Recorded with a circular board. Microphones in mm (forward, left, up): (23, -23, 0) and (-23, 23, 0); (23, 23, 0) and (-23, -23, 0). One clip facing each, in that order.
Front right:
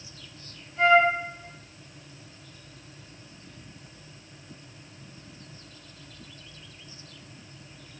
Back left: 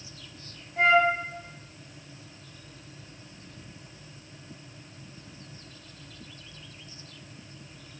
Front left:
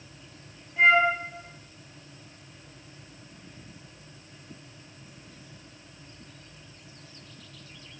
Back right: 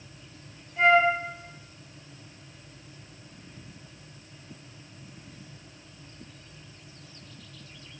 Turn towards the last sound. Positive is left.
turn(degrees=130)